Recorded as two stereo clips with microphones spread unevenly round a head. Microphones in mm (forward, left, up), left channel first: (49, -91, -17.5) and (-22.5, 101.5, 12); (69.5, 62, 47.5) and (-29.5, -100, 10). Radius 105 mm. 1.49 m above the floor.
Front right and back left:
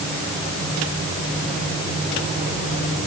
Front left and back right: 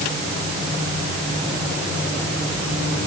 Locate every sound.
Only background noise.